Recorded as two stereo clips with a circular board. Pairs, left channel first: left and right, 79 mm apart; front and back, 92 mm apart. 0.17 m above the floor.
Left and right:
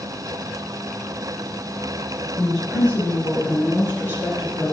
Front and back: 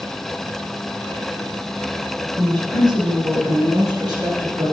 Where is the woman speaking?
170° left, 2.5 m; by 4.7 s 140° left, 4 m.